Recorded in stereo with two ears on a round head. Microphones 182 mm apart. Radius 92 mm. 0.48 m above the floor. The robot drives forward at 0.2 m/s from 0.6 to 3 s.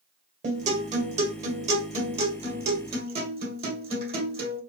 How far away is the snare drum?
No snare drum in this recording.